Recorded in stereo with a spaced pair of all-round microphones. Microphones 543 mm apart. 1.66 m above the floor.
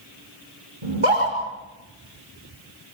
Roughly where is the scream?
Right.